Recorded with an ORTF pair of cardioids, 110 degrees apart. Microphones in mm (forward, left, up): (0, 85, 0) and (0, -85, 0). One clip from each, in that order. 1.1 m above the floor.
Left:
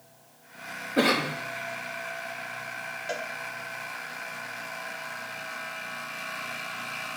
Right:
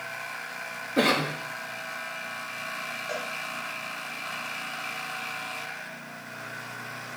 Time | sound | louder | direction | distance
1.0 | a cough | even | straight ahead | 0.8 m
3.1 | a cowbell | left 1 dB | 35° left | 0.9 m